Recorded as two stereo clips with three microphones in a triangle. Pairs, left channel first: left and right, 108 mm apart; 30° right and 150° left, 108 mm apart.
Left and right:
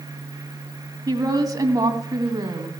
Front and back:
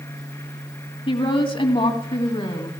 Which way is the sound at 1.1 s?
45° right.